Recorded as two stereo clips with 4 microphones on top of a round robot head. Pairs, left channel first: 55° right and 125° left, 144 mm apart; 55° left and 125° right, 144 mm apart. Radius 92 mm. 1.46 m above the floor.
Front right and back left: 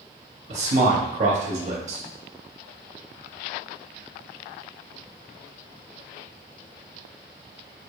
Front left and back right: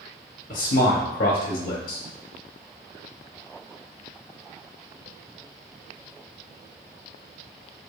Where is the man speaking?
80° left, 0.5 m.